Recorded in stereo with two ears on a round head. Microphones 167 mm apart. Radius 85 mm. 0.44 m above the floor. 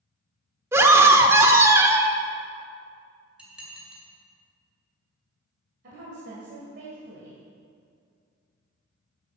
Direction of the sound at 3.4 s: 5° right (ahead or behind).